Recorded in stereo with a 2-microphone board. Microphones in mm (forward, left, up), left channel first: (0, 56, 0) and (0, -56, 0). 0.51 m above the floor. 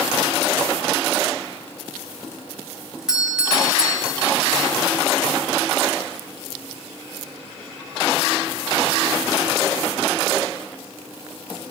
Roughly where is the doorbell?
Centre.